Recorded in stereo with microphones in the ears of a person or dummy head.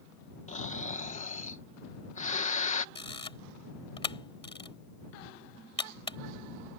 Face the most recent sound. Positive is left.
turn(degrees=30)  # may be behind; listen again after turning